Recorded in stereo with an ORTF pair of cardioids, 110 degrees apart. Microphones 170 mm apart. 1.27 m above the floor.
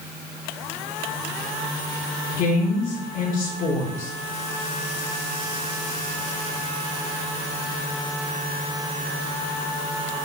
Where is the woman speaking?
50° left, 4.5 m.